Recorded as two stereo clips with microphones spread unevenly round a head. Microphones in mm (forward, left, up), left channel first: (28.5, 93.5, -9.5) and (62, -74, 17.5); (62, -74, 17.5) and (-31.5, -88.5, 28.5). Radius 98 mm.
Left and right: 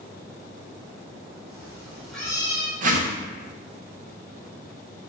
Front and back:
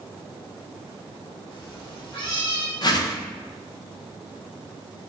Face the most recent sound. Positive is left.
turn(degrees=-35)